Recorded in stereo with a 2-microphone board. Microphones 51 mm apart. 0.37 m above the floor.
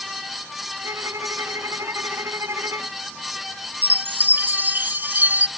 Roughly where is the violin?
Right.